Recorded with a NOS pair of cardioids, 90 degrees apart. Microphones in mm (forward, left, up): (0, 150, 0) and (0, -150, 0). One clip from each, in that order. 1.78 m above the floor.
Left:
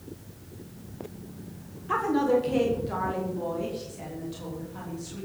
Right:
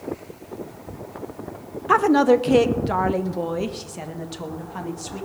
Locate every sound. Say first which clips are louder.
1.9 s a woman speaking: right 8 dB; 70° right, 1.3 m; by 5.2 s 75° right, 3.5 m